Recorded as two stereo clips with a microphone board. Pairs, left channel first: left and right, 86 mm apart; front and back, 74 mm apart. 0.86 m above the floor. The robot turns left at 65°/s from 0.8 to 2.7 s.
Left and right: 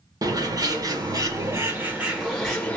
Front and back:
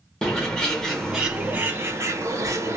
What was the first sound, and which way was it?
A bird, 80° right.